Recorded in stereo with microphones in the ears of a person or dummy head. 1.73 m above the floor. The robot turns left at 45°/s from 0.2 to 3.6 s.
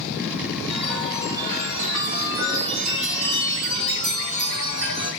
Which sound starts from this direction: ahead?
A chime, at 0.7 s.